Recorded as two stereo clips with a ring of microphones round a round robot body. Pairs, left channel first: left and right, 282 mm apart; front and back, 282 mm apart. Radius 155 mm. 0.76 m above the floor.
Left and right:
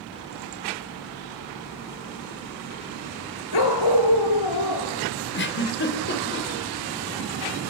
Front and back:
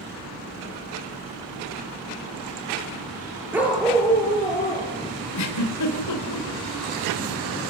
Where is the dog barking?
95° left, 4 m; by 4.9 s 75° left, 5.5 m.